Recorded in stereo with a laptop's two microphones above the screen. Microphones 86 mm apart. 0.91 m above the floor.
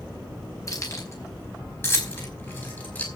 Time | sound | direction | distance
0.7 | keys jangling | 40° left (ahead or behind) | 4.5 m